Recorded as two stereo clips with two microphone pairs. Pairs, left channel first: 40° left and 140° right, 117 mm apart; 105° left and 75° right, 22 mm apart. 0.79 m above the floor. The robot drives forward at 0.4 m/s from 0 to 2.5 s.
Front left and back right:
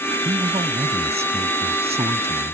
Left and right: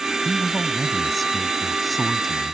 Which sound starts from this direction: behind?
A man speaking, at 0.2 s.